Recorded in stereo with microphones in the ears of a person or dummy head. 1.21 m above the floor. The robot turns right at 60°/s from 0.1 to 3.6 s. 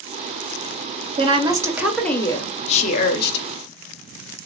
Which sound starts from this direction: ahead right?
A woman speaking, at 1.2 s.